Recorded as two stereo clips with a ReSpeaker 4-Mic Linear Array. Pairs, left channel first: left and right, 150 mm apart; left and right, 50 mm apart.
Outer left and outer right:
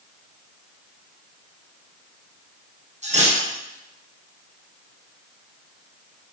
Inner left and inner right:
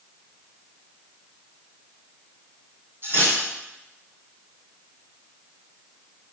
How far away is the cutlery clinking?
About 2.5 m.